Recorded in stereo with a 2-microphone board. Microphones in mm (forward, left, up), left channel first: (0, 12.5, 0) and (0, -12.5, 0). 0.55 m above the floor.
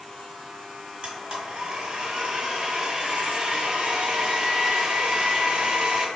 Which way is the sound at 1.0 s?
45° right (ahead or behind).